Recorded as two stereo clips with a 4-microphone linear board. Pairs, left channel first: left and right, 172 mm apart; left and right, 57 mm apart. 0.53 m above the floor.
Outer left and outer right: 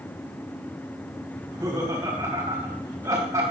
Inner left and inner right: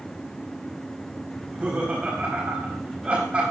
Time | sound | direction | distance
1.4 | laughter | 20° right (ahead or behind) | 4 m